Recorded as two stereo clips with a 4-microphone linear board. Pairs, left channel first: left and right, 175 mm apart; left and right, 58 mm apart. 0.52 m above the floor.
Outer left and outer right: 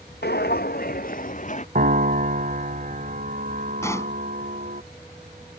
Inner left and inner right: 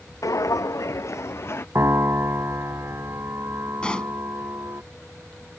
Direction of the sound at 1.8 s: 55° right (ahead or behind).